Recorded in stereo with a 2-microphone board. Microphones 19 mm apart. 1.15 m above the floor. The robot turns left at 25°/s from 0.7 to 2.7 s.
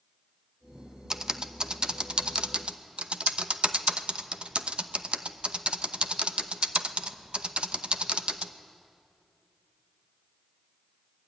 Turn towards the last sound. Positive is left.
turn(degrees=-70)  # may be behind; listen again after turning